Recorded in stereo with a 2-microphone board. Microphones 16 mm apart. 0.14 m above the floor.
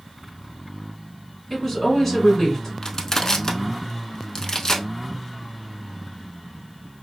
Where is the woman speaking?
5° left (ahead or behind), 1.6 m.